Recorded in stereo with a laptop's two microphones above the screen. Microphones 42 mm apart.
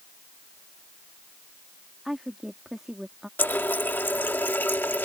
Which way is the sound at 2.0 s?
10° right (ahead or behind).